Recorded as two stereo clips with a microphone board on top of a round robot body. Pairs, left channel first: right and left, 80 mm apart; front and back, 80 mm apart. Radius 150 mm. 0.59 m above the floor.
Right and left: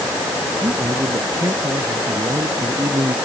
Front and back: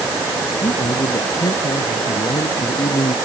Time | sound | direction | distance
0.6 | a man speaking | 35° left | ?